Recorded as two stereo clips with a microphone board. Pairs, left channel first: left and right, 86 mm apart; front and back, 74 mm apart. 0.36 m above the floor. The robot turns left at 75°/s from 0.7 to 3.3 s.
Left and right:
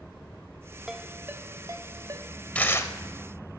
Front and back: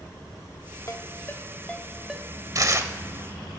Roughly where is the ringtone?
Ahead.